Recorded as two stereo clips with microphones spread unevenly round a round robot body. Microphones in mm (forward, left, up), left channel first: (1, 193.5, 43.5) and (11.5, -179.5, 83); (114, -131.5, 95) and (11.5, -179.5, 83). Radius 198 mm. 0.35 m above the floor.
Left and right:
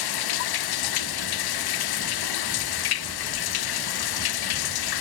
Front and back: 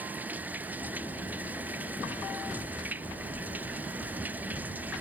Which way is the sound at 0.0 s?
120° left.